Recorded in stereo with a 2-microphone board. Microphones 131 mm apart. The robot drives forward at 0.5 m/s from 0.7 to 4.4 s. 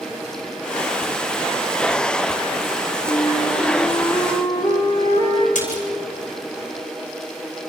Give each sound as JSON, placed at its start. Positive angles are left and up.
{"t": 3.0, "sound": "a flute", "side_deg": 30, "distance_m": 3.0}
{"t": 5.5, "sound": "a splash", "side_deg": 80, "distance_m": 5.0}